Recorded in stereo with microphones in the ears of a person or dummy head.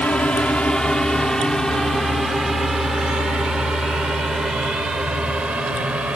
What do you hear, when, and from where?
0.0 s a drone: centre (ahead or behind); by 6.2 s 10° right (ahead or behind)